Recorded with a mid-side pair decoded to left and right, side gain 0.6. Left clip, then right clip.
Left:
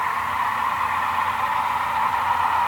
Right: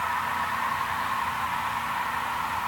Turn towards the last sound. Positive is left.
No sound to turn to.